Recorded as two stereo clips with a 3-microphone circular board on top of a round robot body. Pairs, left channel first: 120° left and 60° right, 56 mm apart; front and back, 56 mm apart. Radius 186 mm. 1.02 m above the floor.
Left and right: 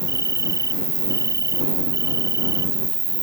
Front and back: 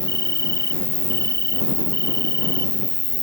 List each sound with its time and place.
0.0 s an insect: 45° right